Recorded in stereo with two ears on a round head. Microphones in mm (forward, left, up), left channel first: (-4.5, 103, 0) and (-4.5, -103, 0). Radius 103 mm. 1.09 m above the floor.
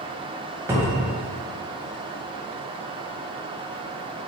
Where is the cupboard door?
10° right (ahead or behind), 0.8 m.